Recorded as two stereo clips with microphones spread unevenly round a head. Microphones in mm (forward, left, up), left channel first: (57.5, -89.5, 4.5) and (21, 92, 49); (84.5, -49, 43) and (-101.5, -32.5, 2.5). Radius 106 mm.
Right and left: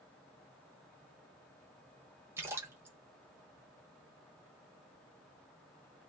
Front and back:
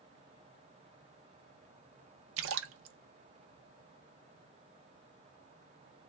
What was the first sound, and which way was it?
A splash, straight behind.